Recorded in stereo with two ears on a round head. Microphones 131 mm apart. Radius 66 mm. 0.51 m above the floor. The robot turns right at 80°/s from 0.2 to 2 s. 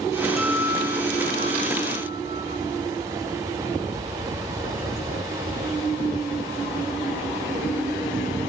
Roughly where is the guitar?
Behind.